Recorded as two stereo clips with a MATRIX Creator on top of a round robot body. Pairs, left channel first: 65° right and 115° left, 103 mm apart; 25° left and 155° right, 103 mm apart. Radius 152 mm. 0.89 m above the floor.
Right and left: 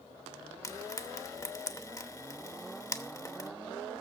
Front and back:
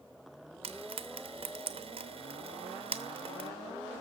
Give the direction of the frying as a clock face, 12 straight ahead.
4 o'clock.